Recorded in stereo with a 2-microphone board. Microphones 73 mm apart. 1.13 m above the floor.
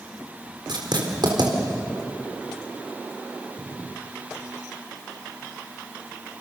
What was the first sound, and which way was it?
Writing, 70° right (ahead or behind).